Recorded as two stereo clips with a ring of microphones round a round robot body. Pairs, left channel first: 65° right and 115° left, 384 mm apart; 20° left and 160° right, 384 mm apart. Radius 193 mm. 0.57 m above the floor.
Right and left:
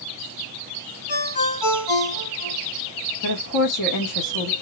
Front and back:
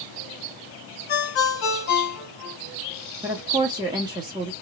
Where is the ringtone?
25° right, 3 m.